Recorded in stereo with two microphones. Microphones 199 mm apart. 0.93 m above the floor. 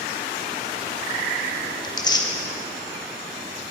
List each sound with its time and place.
1.8 s tearing paper: 20° left (ahead or behind), 0.5 m